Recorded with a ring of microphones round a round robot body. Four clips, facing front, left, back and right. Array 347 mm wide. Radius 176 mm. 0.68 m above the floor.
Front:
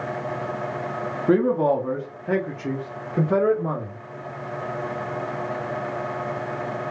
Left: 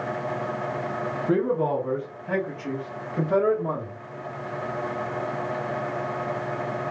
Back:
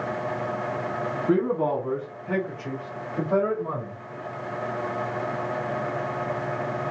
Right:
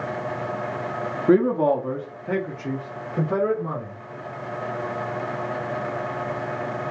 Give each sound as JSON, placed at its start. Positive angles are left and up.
{"t": 1.3, "sound": "a man speaking", "azimuth_deg": -50, "distance_m": 1.2}